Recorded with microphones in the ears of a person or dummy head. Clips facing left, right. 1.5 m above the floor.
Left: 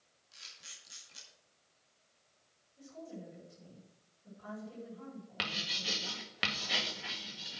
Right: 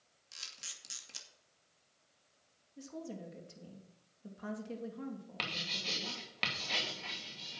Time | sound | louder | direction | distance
0.3 | a camera shutter | right 3 dB | 85° right | 2.5 m
2.8 | a woman speaking | right 3 dB | 85° right | 3 m
5.4 | writing | left 1 dB | 10° left (ahead or behind) | 2 m